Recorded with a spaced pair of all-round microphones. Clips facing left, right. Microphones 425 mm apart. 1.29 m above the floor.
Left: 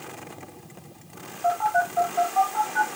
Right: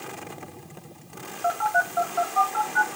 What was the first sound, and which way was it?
A phone buzzing, 30° left (ahead or behind).